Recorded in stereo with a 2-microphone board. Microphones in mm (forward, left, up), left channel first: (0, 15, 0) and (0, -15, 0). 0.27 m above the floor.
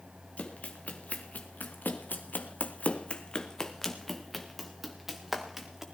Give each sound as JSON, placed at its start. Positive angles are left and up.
{"t": 0.4, "sound": "running footsteps", "side_deg": 55, "distance_m": 2.0}